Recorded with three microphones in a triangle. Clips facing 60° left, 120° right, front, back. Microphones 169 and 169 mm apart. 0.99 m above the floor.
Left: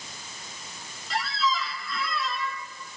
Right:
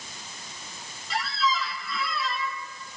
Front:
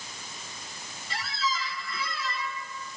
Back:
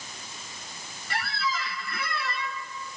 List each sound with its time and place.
1.1 s a squeak: 150° left, 0.7 m